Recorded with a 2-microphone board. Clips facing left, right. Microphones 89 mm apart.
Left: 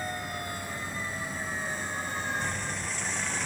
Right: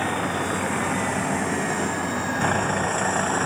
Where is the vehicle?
85° right; by 3.5 s 55° right (ahead or behind).